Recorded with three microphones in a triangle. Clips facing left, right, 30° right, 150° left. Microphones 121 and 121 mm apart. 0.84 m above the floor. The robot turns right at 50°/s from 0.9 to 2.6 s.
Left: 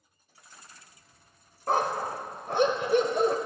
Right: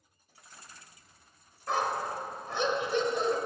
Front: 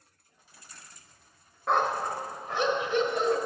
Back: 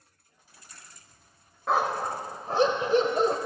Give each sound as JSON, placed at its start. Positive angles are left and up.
{"t": 1.7, "sound": "a dog barking", "azimuth_deg": 60, "distance_m": 0.8}